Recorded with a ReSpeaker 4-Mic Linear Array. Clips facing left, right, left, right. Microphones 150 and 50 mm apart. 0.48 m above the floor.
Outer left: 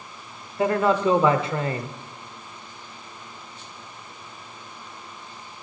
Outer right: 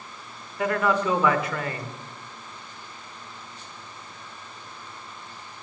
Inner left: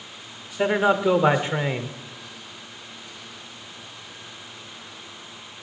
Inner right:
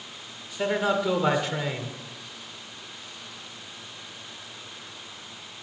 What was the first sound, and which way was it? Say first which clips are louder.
A man speaking: outer left 3 dB, inner left 5 dB; 25° left (ahead or behind).